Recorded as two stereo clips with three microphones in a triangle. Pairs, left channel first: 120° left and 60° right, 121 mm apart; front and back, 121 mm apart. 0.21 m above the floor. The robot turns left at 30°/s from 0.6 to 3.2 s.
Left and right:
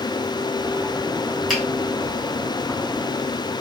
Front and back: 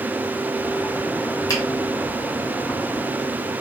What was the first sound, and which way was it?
A finger snap, 35° left.